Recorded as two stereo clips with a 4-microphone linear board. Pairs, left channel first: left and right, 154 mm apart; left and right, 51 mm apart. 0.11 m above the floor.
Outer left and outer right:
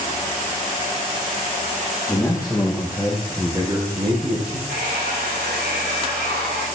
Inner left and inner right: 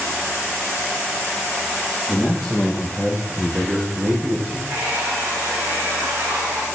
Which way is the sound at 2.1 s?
15° left (ahead or behind).